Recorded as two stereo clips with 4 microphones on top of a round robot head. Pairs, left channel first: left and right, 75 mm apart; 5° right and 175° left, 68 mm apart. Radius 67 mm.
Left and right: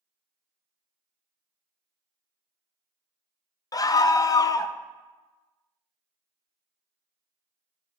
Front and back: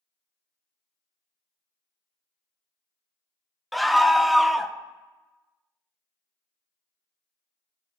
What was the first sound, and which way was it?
A scream, 85° left.